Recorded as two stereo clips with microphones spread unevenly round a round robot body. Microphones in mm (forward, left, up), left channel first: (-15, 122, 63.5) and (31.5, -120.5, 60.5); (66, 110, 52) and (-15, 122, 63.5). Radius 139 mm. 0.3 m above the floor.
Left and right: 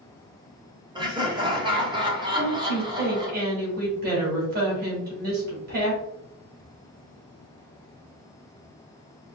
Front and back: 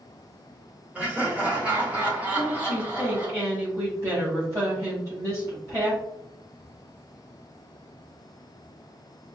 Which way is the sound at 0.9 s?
120° right.